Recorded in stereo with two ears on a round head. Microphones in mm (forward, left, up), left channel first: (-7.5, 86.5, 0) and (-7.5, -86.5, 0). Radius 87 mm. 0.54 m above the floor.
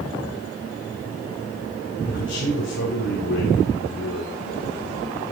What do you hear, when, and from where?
2.0 s a man speaking: 65° left (ahead or behind), 2 m